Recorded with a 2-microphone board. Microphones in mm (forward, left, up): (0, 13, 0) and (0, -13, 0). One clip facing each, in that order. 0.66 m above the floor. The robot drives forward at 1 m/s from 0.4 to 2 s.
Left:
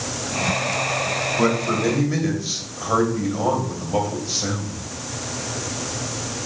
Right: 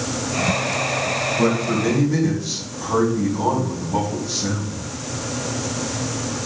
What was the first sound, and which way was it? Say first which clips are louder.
A man speaking: even; 35° left (ahead or behind).